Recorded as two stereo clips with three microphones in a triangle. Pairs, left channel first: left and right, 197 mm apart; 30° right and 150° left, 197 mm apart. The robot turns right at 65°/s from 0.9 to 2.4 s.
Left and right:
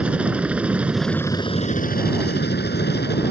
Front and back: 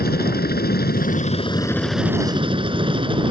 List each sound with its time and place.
0.0 s a helicopter: 5° right; by 3.3 s 90° left